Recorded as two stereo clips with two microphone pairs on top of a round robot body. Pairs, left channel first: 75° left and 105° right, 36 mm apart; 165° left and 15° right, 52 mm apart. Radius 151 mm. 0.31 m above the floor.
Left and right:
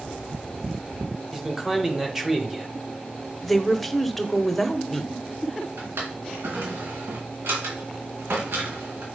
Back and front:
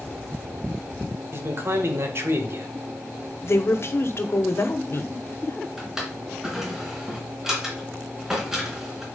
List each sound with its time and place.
1.3 s a man speaking: 20° right, 2.5 m
3.4 s a woman speaking: 150° left, 1.5 m
5.8 s a drawer: 95° right, 3 m